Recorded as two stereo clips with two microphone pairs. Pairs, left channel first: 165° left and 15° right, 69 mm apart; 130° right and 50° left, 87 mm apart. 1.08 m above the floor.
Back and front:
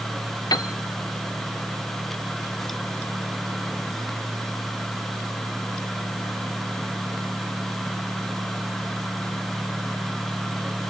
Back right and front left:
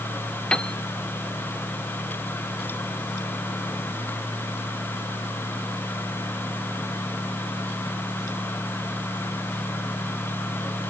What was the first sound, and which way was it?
A piano, 150° left.